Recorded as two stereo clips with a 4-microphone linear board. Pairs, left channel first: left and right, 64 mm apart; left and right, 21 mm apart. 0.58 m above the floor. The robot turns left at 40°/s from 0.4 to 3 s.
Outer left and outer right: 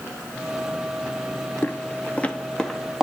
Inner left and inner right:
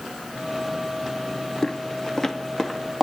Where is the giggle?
No giggle in this recording.